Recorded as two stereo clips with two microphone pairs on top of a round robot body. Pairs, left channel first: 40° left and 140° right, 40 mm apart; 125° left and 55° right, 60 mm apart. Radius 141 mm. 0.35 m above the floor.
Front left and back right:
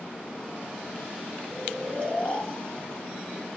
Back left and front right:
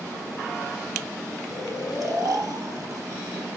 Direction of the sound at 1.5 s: 20° right.